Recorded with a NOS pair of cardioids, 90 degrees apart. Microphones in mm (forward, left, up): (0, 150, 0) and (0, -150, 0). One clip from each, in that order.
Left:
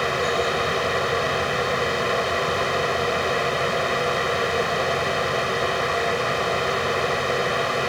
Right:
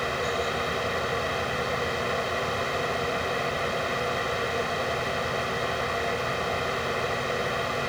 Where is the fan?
40° left.